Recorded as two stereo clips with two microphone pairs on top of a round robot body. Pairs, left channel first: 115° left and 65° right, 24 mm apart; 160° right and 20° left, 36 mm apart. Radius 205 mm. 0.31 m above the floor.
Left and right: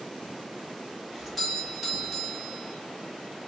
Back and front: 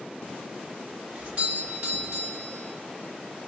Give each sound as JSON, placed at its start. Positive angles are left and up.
{"t": 1.1, "sound": "a doorbell", "azimuth_deg": 0, "distance_m": 1.7}